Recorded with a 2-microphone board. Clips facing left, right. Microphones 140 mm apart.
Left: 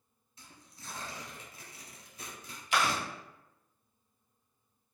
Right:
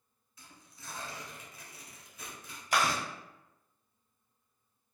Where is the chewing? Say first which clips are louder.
Even; 45° right (ahead or behind), 1.1 m.